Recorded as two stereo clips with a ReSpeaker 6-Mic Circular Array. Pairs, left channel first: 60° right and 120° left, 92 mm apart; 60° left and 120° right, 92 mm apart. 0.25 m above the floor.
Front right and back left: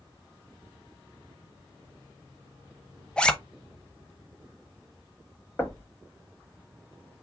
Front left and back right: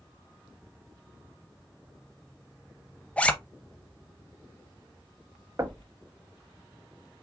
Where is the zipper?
5° left, 0.6 m.